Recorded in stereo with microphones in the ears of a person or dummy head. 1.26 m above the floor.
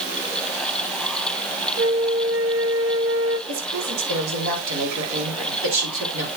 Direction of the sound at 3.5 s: 75° right (ahead or behind).